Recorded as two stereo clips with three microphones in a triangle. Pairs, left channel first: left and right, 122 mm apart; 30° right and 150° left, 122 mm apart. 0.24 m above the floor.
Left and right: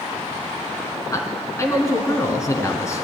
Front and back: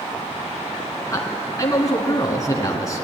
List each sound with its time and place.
1.1 s a man speaking: 30° left, 2.5 m